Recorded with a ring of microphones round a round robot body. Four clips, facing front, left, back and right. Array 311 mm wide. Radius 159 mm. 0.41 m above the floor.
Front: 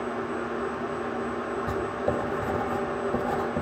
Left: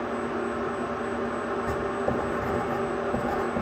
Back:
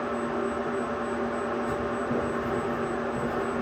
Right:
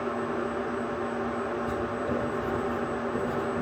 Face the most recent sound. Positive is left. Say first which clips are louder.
# left 2 dB, front 1 dB
turn(degrees=35)